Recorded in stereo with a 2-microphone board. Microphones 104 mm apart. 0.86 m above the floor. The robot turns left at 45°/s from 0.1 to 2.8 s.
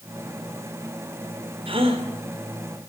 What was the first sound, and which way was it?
A gasp, 60° right (ahead or behind).